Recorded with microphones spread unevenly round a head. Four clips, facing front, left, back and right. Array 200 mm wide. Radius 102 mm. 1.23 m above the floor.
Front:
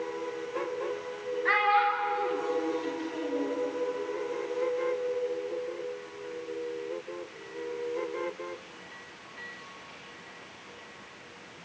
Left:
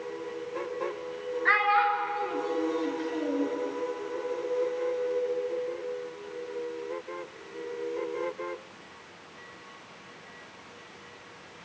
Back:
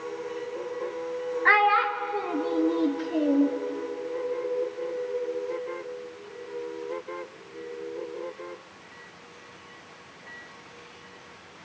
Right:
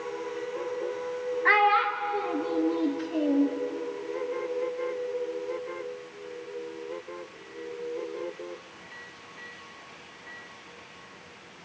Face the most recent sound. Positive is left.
turn(degrees=-150)